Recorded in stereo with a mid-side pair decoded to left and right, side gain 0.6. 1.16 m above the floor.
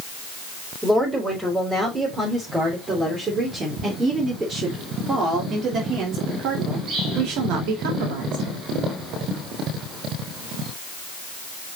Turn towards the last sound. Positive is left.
turn(degrees=-80)